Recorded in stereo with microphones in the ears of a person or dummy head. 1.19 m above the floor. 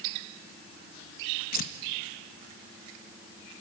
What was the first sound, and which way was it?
Tearing paper, 55° left (ahead or behind).